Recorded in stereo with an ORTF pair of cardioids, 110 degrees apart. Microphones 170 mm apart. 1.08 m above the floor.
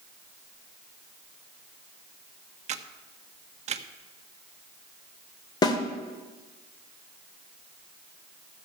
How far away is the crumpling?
No crumpling in this recording.